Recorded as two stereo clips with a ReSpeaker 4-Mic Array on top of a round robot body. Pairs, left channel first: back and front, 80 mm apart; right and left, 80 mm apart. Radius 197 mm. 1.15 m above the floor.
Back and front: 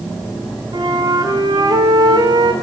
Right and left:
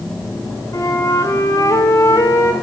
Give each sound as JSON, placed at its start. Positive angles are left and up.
{"t": 0.7, "sound": "a flute", "azimuth_deg": -40, "distance_m": 2.5}